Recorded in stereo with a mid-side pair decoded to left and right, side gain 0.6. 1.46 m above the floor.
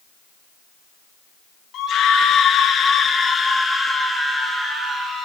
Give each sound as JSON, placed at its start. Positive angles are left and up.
{"t": 1.7, "sound": "a scream", "azimuth_deg": 50, "distance_m": 1.8}